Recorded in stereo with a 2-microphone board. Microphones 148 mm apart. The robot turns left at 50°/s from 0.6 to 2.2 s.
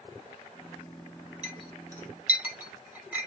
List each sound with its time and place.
1.4 s a clink: 45° right (ahead or behind), 3 m; by 3.3 s 10° right (ahead or behind), 3 m